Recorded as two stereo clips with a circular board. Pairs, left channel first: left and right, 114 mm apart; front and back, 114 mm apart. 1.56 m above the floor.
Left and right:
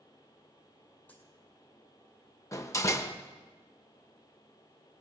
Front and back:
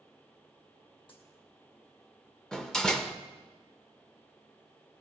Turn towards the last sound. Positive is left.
turn(degrees=80)